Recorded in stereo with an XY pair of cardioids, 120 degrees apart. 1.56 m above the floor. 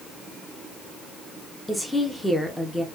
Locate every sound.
1.7 s a woman speaking: 5° left, 1.0 m